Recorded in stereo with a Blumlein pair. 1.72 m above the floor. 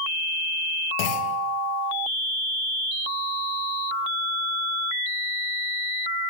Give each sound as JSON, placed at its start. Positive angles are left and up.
{"t": 1.0, "sound": "a clunk", "azimuth_deg": 45, "distance_m": 1.0}